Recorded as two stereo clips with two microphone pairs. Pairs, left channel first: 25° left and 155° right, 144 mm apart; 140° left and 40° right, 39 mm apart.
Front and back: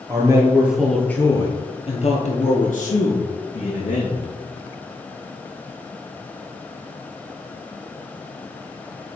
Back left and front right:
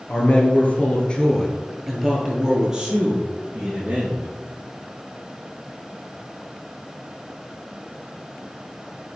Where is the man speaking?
150° left, 1.9 m; by 4.2 s 15° left, 4 m.